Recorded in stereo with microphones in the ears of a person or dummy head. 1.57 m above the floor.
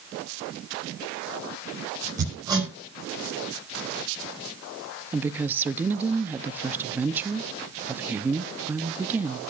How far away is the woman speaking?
About 0.7 m.